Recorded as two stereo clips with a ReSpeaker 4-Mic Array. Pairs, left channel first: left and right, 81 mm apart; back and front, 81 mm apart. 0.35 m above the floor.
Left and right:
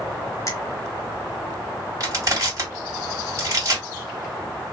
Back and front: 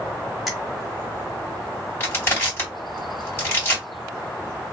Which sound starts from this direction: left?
A finger snap, at 0.5 s.